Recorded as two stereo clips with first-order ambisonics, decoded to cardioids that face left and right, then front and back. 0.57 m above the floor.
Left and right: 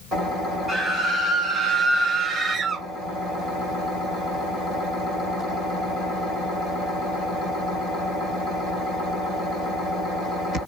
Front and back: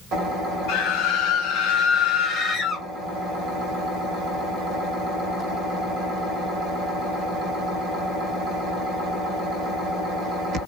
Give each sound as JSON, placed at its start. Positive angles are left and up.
{"t": 0.7, "sound": "a scream", "azimuth_deg": 0, "distance_m": 1.8}